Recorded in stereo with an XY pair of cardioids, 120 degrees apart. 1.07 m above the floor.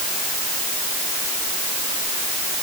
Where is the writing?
I don't hear writing.